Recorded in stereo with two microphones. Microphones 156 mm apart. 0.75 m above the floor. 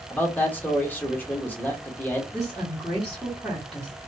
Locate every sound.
0.1 s a man speaking: 10° left (ahead or behind), 1.1 m
2.3 s a woman speaking: centre (ahead or behind), 1.5 m